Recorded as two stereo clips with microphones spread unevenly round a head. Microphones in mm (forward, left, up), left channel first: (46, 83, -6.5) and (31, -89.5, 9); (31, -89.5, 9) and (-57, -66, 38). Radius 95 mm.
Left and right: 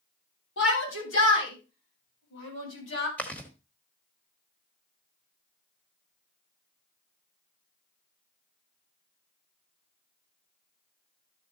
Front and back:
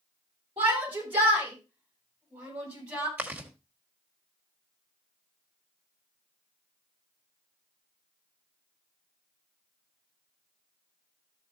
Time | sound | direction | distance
0.6 | a shout | 105° left | 8.5 m
3.2 | chewing | 170° left | 1.3 m